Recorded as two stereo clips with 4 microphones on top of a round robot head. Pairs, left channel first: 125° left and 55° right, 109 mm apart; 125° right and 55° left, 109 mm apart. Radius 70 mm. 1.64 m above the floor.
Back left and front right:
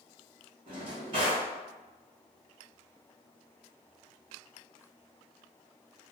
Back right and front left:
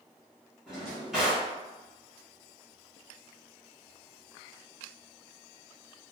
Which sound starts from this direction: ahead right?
A drawer, at 0.7 s.